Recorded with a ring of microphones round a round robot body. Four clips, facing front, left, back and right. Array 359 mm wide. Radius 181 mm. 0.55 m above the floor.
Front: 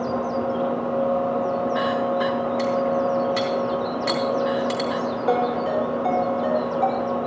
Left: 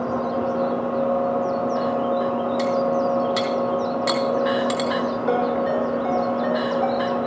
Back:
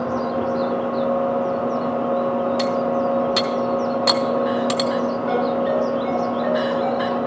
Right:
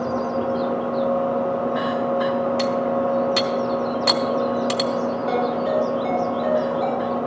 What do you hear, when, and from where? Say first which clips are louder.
2.6 s cutlery clinking: left 1 dB, back 1 dB; 155° right, 1.9 m
5.3 s a ringtone: left 1 dB, even; 35° left, 6.5 m